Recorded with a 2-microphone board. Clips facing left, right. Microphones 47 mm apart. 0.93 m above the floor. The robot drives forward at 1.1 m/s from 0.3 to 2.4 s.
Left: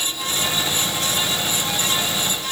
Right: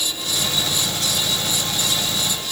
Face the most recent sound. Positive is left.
No sound to turn to.